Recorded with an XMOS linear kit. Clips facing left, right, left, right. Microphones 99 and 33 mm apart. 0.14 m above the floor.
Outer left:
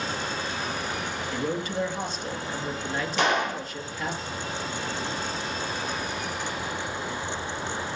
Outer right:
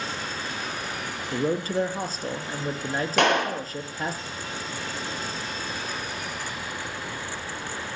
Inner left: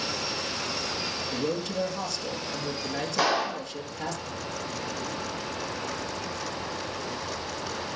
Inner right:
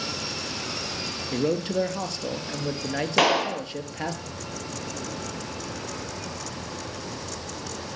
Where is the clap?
60° right (ahead or behind), 3 m.